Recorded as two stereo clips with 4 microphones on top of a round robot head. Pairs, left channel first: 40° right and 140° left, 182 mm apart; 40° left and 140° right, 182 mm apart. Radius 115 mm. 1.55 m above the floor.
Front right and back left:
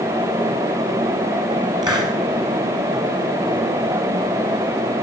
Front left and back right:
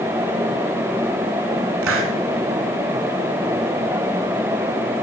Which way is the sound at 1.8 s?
150° right.